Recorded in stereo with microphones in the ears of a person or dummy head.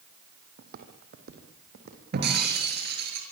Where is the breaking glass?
60° right (ahead or behind), 6 m.